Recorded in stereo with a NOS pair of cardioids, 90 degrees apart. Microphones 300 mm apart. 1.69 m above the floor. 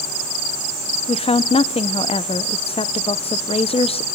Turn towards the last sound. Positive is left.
turn(degrees=20)